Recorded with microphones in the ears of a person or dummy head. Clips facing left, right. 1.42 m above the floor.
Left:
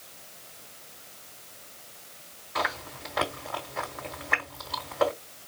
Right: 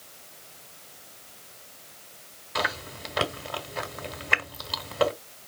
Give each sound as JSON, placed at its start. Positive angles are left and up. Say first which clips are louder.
{"t": 2.5, "sound": "chewing", "louder": "right 1 dB", "side_deg": -40, "distance_m": 1.5}